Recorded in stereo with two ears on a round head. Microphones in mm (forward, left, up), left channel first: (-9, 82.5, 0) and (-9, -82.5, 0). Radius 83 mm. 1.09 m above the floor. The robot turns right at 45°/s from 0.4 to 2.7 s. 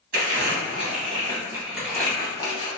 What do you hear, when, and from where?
0.1 s crumpling: 50° right (ahead or behind), 1.2 m; by 2.7 s 30° left (ahead or behind), 1.2 m